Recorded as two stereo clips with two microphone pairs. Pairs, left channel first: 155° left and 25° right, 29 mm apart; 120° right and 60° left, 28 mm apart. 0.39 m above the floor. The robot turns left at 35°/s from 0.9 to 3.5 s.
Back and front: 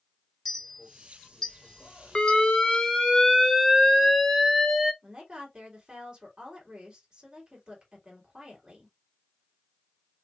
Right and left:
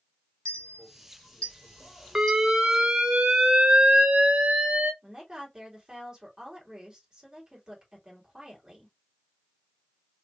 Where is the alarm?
115° left, 0.7 m; by 4.9 s 70° left, 0.7 m.